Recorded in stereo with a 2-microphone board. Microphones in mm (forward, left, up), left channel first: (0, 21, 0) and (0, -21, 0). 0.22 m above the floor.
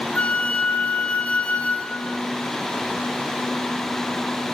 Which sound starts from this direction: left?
A flute, at 0.1 s.